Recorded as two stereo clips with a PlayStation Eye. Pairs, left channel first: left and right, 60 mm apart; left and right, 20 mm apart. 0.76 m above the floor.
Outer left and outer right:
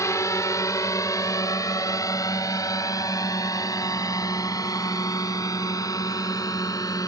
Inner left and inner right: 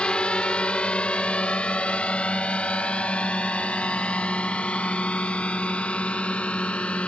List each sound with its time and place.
0.0 s a drone: 60° left (ahead or behind); by 7.1 s 85° left